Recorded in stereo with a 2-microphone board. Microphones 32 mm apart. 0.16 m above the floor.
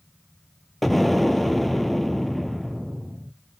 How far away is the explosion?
About 0.6 m.